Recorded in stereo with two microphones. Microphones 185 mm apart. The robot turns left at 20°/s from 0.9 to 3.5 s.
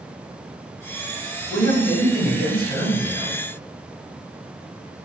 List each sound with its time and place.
1.5 s a man speaking: 25° left, 1.9 m; by 3.4 s 10° right, 1.9 m